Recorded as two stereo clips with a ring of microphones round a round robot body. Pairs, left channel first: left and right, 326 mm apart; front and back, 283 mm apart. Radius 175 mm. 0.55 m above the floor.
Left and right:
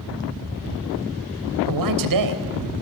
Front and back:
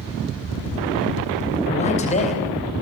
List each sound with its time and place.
1.7 s a man speaking: 70° right, 3.5 m